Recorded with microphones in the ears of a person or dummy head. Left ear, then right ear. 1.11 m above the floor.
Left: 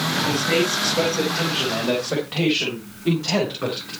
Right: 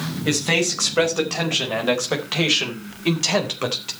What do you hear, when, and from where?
0.2 s a man speaking: 40° right (ahead or behind), 4.5 m; by 3.9 s 70° right (ahead or behind), 3.5 m